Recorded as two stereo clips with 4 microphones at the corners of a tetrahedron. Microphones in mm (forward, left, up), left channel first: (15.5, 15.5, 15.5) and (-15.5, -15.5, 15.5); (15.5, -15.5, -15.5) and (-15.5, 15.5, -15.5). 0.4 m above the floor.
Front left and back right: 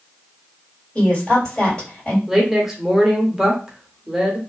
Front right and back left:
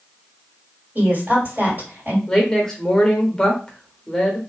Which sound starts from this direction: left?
A woman speaking, at 0.9 s.